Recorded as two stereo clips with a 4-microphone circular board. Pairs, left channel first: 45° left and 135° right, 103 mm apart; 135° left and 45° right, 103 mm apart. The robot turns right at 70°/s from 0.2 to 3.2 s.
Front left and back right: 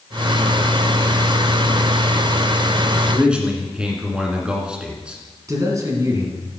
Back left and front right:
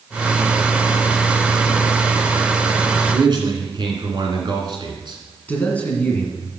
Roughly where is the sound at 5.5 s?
Behind.